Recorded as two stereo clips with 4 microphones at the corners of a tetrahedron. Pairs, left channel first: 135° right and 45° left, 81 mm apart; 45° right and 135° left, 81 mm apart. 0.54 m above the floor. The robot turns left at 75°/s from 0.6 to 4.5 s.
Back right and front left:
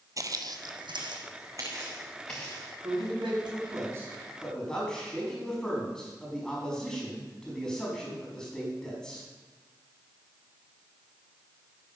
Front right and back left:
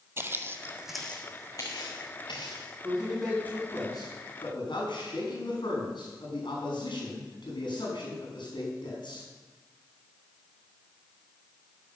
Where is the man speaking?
70° left, 5 m; by 9.3 s 55° right, 5 m.